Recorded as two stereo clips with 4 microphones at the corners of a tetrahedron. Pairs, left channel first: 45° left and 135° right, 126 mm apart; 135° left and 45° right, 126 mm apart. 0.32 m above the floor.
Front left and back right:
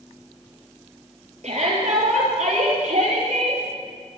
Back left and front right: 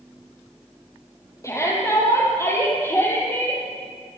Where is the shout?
160° right, 10 m; by 3.6 s 150° right, 10 m.